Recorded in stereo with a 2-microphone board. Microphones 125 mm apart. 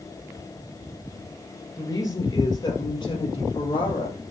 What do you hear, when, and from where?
1.8 s a woman speaking: 25° left (ahead or behind), 3.5 m; by 4.2 s 45° left (ahead or behind), 4 m